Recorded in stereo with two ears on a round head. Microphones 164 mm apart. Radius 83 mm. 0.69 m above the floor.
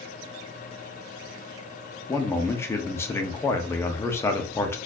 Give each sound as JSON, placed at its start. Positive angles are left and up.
{"t": 2.1, "sound": "a man speaking", "side_deg": 15, "distance_m": 0.8}